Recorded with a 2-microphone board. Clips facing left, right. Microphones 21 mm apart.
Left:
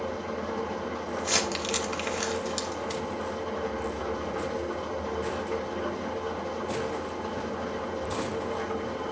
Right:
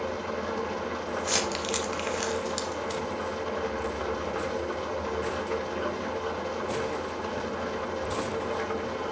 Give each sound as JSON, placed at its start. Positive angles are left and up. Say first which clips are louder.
{"t": 0.0, "sound": "an engine running", "louder": "right 1 dB", "side_deg": -35, "distance_m": 1.1}
{"t": 1.2, "sound": "crumpling", "louder": "left 1 dB", "side_deg": 0, "distance_m": 1.1}